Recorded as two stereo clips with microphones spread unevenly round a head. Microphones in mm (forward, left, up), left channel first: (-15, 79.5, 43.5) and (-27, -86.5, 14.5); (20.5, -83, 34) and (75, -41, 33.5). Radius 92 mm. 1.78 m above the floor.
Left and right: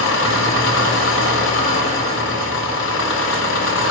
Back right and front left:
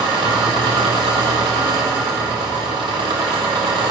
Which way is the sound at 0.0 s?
70° left.